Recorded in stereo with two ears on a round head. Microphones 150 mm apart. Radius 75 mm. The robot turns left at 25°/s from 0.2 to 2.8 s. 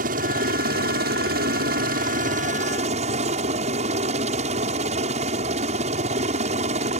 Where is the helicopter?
65° right; by 7.0 s 130° right.